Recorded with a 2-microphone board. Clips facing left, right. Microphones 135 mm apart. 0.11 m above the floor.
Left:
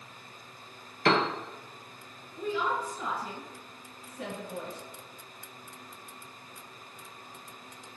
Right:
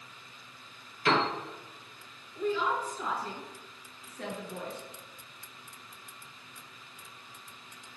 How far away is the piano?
About 0.8 m.